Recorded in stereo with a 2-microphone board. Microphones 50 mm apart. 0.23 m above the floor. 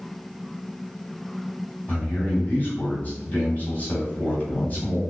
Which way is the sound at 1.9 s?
35° left (ahead or behind).